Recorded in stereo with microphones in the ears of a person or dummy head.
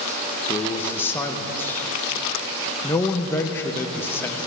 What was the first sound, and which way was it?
A man speaking, 20° left (ahead or behind).